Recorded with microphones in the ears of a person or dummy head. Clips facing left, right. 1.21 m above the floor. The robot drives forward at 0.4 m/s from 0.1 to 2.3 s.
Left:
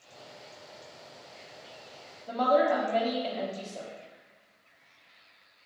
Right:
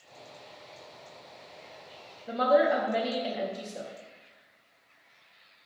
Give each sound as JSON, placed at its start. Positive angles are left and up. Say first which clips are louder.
{"t": 2.3, "sound": "a woman speaking", "louder": "right 1 dB", "side_deg": -15, "distance_m": 0.6}